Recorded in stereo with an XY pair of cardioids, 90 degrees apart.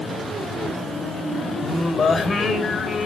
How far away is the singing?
About 3 m.